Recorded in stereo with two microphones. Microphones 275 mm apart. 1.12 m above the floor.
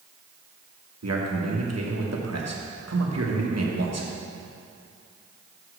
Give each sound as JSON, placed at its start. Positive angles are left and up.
{"t": 1.0, "sound": "a man speaking", "side_deg": -65, "distance_m": 1.2}